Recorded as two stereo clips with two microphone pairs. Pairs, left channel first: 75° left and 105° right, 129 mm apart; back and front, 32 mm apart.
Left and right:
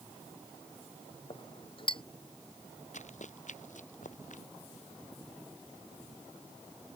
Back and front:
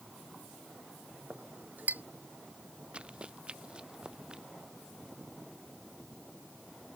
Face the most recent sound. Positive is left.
turn(degrees=60)